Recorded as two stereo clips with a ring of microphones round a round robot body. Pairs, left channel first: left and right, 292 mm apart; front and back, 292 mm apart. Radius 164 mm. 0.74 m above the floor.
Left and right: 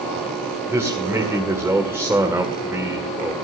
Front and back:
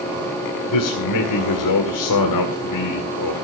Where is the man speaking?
10° right, 2 m.